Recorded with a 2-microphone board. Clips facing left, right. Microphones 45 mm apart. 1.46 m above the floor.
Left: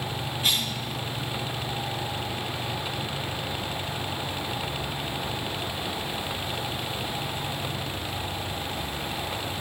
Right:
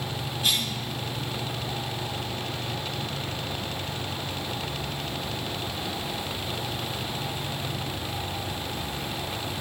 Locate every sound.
0.4 s a cough: 15° left (ahead or behind), 1.6 m